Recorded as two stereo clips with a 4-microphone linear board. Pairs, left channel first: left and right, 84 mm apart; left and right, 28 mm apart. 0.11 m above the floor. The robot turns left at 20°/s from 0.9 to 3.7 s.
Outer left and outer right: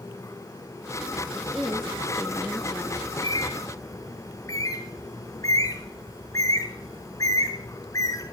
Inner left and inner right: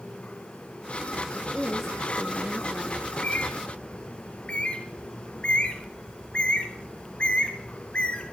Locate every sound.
1.3 s a woman speaking: 175° left, 1.4 m; by 3.0 s 140° left, 1.4 m
3.0 s a bird: 45° left (ahead or behind), 1.8 m; by 8.3 s 40° left (ahead or behind), 1.8 m